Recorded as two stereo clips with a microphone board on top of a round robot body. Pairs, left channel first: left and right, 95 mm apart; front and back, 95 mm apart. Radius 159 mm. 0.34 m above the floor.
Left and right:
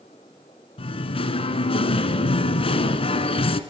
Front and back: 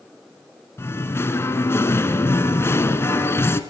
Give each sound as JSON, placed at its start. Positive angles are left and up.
{"t": 0.8, "sound": "singing", "azimuth_deg": 65, "distance_m": 1.5}